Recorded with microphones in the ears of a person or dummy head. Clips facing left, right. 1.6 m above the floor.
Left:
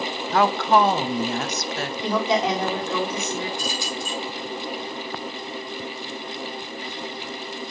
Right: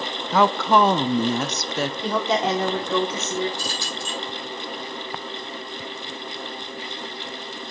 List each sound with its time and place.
0.3 s a woman speaking: 80° right, 0.6 m
2.0 s a woman speaking: 5° right (ahead or behind), 1.2 m
3.6 s keys jangling: 20° left (ahead or behind), 3.5 m